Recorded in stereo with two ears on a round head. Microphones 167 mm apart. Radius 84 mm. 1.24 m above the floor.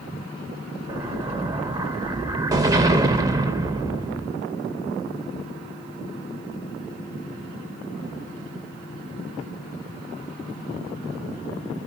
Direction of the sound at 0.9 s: 20° right (ahead or behind).